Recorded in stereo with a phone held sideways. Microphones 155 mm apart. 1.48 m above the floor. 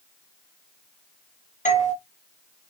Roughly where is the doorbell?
Left.